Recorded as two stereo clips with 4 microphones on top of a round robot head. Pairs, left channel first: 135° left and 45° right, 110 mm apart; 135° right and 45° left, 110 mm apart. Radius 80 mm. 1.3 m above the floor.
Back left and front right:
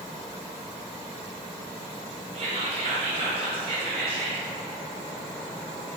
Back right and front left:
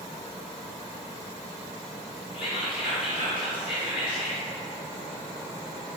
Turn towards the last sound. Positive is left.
turn(degrees=-90)